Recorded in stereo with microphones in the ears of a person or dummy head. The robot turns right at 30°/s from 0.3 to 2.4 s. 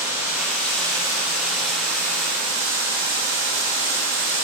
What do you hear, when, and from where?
0.0 s running water: 165° right, 0.9 m; by 4.5 s 105° right, 0.9 m